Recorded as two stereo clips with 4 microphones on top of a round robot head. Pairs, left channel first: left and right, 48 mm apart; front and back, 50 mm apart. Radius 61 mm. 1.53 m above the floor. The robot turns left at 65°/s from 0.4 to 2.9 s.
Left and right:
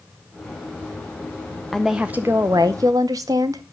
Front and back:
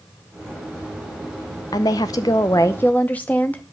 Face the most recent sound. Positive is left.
turn(degrees=-70)